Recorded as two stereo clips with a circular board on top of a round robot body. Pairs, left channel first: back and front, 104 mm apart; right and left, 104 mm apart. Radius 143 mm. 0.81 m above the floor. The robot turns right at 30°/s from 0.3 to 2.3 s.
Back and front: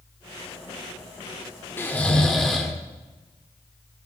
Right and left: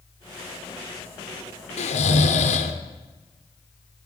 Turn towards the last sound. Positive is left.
turn(degrees=-95)